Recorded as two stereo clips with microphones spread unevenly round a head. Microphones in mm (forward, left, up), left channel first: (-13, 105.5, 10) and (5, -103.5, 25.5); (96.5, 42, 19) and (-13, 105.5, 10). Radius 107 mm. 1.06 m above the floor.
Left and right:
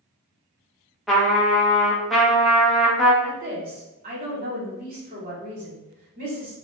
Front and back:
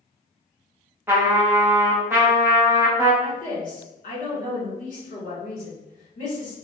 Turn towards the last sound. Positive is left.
turn(degrees=-40)